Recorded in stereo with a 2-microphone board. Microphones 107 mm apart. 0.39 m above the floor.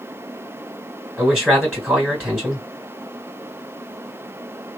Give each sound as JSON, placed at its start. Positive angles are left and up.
{"t": 1.2, "sound": "a man speaking", "side_deg": -5, "distance_m": 2.0}